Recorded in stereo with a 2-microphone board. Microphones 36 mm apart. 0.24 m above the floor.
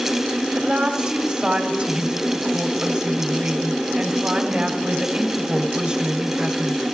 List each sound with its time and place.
0.5 s a woman speaking: 30° right (ahead or behind), 1.2 m